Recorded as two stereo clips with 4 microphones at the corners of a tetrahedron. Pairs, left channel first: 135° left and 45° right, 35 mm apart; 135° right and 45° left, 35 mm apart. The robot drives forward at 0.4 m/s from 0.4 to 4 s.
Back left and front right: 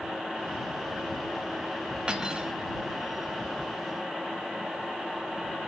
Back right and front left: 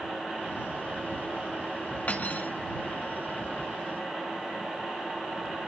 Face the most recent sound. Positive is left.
turn(degrees=-135)